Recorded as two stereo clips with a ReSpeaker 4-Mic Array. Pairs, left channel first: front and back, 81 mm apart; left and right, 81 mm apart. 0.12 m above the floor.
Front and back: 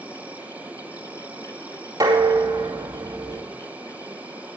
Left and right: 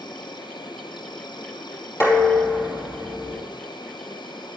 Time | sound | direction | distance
0.0 | an insect | 105° left | 0.9 m
2.0 | dishes clattering | 135° left | 2.5 m